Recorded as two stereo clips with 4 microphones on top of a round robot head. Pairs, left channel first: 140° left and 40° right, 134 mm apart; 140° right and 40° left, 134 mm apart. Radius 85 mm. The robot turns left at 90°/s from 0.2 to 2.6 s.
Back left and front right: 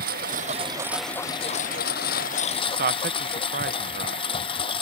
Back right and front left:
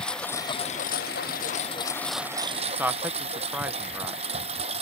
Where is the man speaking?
40° right.